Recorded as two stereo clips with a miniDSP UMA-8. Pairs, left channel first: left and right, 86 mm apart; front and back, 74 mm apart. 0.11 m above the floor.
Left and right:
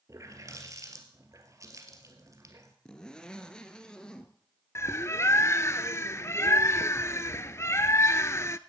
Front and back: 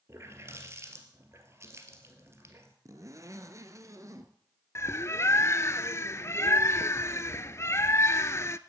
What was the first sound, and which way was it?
A running tap, 135° right.